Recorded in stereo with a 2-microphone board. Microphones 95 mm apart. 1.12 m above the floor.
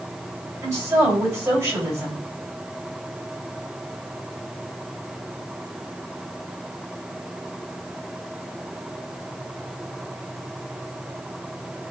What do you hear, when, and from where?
0.6 s a woman speaking: 35° right (ahead or behind), 5 m